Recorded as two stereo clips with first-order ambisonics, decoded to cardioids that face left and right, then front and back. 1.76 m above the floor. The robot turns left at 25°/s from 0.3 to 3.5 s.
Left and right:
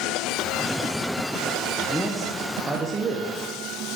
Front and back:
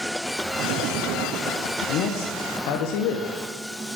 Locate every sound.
1.9 s a man speaking: 5° left, 0.9 m; by 3.4 s 30° right, 0.9 m